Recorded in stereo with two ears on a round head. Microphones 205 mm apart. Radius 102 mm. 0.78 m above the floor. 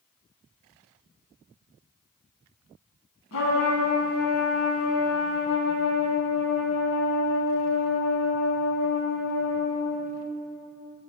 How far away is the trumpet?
About 1.3 m.